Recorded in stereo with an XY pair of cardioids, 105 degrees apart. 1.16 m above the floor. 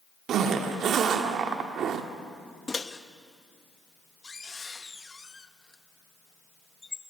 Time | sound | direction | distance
0.3 | a zipper | 70° right | 1.5 m
2.7 | a microwave | 25° left | 0.9 m